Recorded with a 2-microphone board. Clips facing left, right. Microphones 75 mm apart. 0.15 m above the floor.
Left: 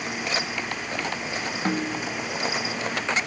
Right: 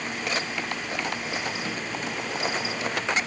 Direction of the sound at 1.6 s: 40° left (ahead or behind).